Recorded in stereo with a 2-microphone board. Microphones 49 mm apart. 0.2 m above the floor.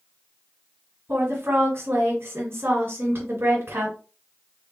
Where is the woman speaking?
45° right (ahead or behind), 1.6 m.